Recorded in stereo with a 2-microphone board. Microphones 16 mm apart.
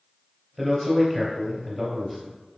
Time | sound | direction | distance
0.6 | a man speaking | 10° left (ahead or behind) | 2.0 m